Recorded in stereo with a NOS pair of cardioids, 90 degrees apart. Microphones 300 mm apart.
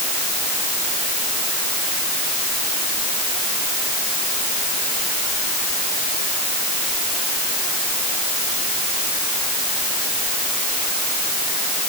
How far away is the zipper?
I don't hear a zipper.